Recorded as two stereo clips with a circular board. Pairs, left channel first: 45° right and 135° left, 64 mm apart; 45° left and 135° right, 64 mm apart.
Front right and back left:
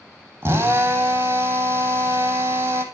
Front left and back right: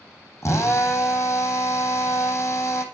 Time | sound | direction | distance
0.4 | a drill | 90° left | 3.5 m